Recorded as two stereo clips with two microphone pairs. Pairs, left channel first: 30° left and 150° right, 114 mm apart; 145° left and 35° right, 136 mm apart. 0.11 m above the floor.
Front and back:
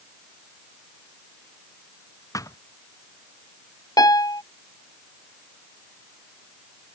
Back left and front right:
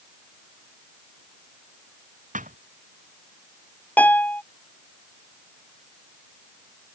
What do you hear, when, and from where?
2.3 s a thud: 30° right
4.0 s a piano: 70° left